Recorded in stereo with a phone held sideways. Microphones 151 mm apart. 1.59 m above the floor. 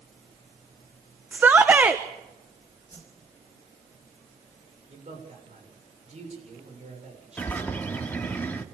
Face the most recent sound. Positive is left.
turn(degrees=10)  # may be behind; listen again after turning